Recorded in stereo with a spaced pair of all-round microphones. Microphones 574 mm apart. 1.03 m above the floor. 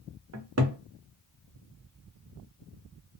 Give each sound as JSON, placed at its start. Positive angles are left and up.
{"t": 0.3, "sound": "a cupboard door", "side_deg": -30, "distance_m": 0.6}